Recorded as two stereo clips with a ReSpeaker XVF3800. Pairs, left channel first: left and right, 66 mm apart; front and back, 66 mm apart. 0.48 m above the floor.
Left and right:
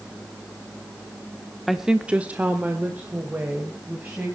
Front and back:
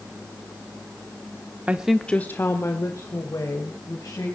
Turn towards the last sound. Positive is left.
turn(degrees=-25)